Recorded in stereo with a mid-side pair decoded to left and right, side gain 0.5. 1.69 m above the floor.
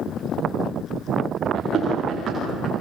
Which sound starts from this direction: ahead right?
Running footsteps, at 1.6 s.